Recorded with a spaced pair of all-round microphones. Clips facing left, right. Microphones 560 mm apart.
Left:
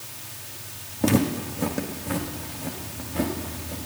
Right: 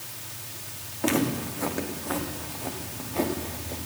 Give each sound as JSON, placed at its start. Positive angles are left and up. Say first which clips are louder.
{"t": 1.0, "sound": "footsteps", "louder": "left 3 dB", "side_deg": 60, "distance_m": 4.0}